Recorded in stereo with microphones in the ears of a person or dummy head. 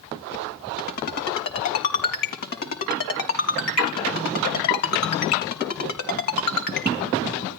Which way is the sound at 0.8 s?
50° left (ahead or behind).